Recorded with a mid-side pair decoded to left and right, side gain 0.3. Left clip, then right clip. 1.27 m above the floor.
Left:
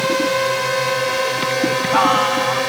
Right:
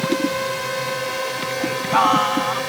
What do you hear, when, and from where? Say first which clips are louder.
0.0 s a drone: left 4 dB; 55° left
1.6 s singing: left 1 dB; straight ahead